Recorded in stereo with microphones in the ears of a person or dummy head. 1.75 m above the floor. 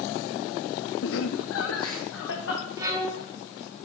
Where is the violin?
25° right (ahead or behind), 1.3 m.